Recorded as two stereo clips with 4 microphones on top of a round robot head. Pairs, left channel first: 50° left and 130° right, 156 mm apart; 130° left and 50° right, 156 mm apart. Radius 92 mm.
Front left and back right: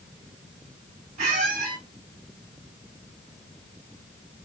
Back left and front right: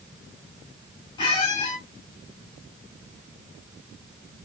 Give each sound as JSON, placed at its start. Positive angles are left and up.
{"t": 1.2, "sound": "a squeak", "azimuth_deg": -170, "distance_m": 1.6}